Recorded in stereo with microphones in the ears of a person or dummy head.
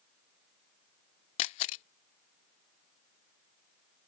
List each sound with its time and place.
1.4 s a camera shutter: 40° left (ahead or behind)